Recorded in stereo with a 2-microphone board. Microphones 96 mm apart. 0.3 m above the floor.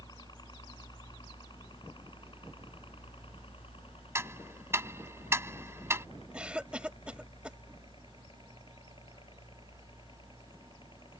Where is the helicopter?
45° left (ahead or behind); by 11.2 s 55° left (ahead or behind).